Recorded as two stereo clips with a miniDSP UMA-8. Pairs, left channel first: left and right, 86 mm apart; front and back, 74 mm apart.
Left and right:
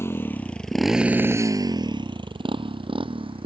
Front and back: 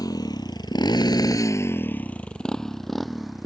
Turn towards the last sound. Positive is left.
turn(degrees=-90)